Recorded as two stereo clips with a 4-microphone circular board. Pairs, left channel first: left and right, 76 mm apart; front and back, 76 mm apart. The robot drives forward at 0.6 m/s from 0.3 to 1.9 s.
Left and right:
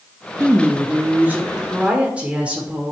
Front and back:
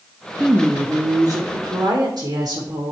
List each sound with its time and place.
0.4 s a woman speaking: 120° right, 0.7 m; by 2.9 s 160° right, 1.3 m